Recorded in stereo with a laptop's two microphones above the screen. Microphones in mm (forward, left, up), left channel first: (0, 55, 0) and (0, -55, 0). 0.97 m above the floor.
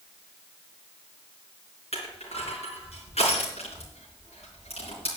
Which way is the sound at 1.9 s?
70° left (ahead or behind).